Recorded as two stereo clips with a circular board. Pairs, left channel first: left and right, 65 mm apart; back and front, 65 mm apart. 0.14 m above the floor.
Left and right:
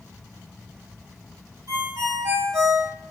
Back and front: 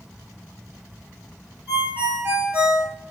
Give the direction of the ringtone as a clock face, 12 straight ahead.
2 o'clock.